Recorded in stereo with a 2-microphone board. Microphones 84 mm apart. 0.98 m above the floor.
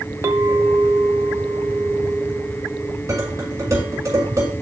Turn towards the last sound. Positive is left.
turn(degrees=-40)  # may be behind; listen again after turning